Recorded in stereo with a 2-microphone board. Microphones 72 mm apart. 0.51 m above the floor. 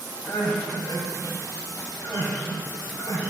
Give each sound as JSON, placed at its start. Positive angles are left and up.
{"t": 0.2, "sound": "crying", "side_deg": 50, "distance_m": 3.5}